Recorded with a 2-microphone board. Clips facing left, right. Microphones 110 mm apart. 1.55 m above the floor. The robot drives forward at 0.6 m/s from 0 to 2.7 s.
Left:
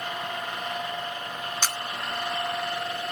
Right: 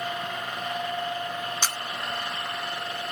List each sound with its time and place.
1.6 s a camera shutter: 10° right (ahead or behind), 1.7 m